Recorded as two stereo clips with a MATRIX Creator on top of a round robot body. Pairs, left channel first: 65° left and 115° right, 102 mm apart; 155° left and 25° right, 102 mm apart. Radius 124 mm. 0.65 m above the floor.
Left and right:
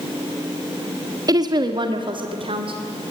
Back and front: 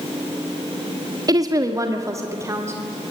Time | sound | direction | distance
1.3 | a woman speaking | 70° right | 1.4 m